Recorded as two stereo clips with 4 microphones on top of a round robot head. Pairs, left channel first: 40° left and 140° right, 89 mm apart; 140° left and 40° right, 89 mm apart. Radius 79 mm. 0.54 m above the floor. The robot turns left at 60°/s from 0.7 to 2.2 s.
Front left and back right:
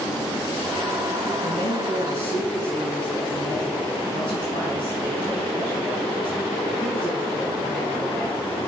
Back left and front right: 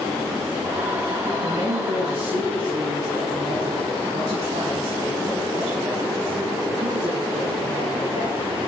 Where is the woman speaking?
5° left, 3.5 m; by 8.4 s 40° right, 3.5 m.